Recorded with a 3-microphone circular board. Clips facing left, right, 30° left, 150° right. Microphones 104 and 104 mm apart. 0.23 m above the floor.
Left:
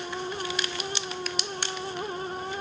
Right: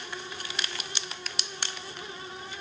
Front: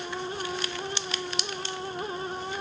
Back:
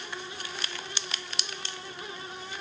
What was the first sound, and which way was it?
Only background noise.